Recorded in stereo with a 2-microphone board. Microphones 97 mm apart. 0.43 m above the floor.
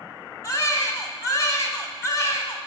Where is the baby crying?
35° left (ahead or behind), 0.8 m.